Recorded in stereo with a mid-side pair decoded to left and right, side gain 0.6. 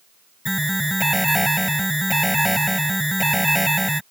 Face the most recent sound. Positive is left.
turn(degrees=0)